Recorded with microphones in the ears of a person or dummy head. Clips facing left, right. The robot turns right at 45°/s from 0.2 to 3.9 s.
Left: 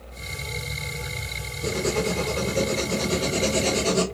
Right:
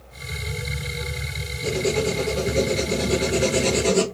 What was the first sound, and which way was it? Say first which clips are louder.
Writing: right 2 dB; centre (ahead or behind).